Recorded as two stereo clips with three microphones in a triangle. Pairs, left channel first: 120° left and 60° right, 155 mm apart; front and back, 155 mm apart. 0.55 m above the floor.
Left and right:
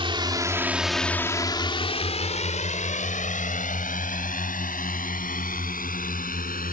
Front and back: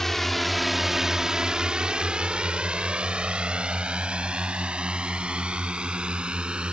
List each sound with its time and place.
0.0 s a drone: 85° right; by 6.8 s 95° left